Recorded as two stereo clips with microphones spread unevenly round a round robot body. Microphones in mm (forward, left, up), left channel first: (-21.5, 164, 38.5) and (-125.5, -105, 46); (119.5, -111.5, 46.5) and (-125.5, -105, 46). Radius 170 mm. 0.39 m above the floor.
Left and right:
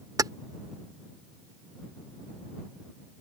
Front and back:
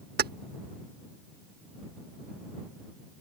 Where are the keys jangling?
175° left.